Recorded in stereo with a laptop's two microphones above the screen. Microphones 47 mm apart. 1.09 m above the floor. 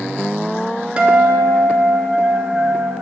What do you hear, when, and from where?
1.0 s a guitar: 25° right (ahead or behind), 1.1 m